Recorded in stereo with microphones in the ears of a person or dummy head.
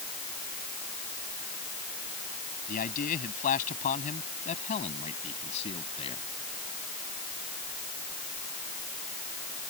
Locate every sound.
2.7 s a man speaking: 45° left (ahead or behind); by 6.3 s 30° left (ahead or behind)